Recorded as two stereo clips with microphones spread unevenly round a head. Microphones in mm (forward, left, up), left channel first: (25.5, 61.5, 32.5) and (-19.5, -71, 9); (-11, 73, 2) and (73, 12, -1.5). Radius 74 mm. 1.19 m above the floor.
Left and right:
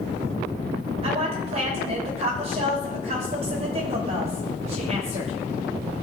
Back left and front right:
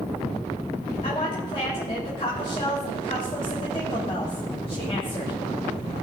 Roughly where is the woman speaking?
Behind right.